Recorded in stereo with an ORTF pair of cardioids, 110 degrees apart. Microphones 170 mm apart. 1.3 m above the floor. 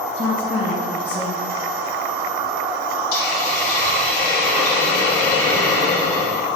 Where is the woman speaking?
30° left, 1.3 m.